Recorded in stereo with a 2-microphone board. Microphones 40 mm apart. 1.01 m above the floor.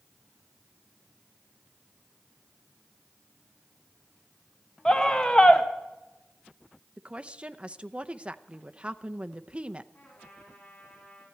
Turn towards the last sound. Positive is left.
turn(degrees=65)  # may be behind; listen again after turning